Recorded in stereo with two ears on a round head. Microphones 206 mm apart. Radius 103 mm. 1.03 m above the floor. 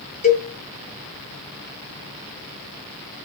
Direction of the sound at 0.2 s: 35° left (ahead or behind).